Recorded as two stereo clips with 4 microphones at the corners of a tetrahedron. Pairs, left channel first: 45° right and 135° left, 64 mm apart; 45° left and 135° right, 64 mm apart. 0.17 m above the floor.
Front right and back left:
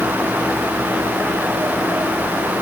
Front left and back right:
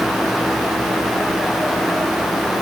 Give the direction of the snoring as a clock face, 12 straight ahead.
No snoring in this recording.